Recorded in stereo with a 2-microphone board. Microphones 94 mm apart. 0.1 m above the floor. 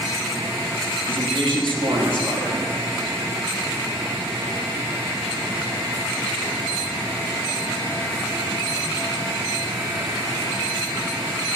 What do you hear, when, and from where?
1.1 s a man speaking: 60° right (ahead or behind), 3.5 m